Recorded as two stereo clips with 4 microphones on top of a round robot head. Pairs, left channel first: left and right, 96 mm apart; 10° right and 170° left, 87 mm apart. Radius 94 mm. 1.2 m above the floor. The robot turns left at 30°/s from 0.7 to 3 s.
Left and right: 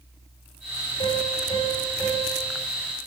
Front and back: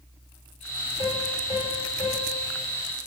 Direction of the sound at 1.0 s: 45° left.